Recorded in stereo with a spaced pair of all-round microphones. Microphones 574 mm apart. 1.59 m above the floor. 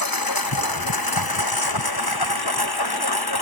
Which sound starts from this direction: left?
A lawn mower, at 0.0 s.